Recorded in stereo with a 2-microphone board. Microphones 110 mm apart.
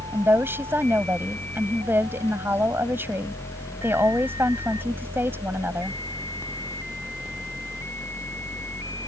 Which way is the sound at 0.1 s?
20° right (ahead or behind).